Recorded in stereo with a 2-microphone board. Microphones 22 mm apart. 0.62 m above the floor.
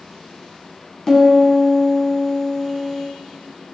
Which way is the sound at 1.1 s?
25° left (ahead or behind).